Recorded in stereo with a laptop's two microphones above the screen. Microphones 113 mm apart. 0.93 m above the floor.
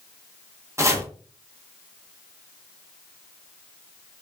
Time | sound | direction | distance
0.8 | chopping | 25° right (ahead or behind) | 0.7 m